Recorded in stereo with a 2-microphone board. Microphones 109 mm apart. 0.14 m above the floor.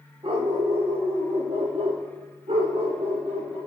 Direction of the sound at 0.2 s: 50° right (ahead or behind).